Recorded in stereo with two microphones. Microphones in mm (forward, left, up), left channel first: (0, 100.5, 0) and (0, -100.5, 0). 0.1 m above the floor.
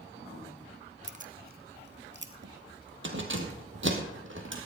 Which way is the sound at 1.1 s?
35° right (ahead or behind).